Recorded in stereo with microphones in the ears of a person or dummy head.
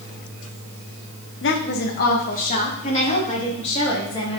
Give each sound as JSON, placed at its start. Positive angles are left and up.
{"t": 1.4, "sound": "a woman speaking", "side_deg": 55, "distance_m": 1.0}